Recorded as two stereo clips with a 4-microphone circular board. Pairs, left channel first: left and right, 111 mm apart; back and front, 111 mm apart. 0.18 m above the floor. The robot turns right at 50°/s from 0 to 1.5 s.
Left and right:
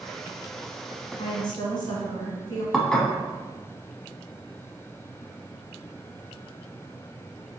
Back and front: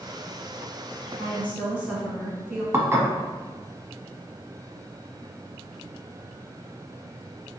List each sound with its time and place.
1.1 s a woman speaking: 55° left, 1.4 m; by 2.6 s 75° left, 1.4 m
2.7 s dishes clattering: 15° left, 0.7 m